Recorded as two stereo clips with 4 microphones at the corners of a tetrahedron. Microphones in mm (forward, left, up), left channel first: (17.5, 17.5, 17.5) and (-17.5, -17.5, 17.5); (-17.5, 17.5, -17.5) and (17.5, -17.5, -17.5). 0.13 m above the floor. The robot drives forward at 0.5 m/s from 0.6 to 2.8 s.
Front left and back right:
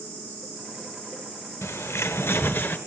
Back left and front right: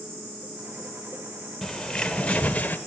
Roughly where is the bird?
Ahead left.